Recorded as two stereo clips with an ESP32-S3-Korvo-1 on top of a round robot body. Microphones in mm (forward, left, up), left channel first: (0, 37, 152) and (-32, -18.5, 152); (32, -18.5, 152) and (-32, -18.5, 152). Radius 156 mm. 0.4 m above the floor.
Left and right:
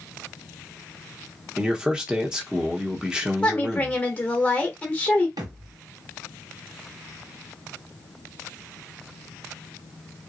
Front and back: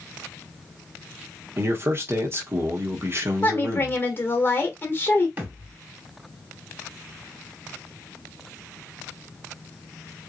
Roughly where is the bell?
No bell in this recording.